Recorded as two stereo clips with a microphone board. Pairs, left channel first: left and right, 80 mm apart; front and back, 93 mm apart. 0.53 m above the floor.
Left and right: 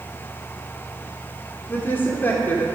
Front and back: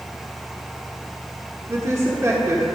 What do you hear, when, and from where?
1.7 s a woman speaking: 140° left, 1.5 m